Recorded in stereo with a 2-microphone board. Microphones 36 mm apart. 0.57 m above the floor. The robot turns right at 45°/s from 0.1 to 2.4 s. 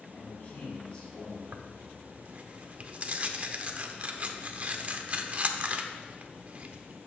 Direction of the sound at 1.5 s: 65° right (ahead or behind).